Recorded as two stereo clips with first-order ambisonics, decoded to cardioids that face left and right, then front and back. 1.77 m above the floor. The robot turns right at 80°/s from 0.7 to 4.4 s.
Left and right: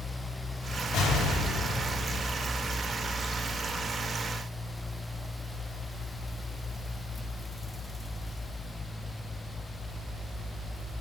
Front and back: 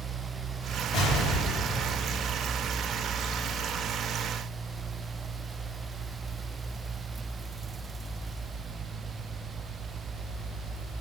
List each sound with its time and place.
0.9 s an explosion: 45° left, 3 m; by 2.2 s 140° left, 3 m